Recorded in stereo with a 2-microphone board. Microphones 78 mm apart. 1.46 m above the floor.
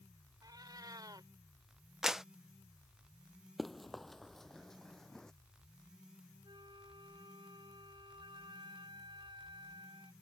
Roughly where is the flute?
Right.